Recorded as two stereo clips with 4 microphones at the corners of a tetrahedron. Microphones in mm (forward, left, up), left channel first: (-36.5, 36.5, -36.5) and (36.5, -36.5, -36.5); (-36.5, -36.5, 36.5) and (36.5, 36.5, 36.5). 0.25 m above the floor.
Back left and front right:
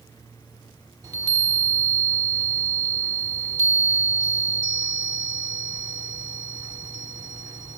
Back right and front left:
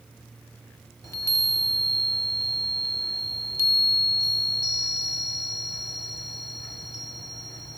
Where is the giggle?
No giggle in this recording.